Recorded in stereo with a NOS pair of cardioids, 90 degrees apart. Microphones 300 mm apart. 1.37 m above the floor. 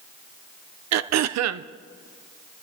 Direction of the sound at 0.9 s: 60° right.